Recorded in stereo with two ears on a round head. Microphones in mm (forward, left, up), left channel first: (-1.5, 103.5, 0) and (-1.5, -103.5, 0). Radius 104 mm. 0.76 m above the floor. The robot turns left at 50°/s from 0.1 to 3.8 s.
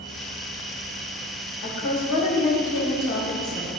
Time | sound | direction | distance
1.6 | a woman speaking | 125° left | 2.5 m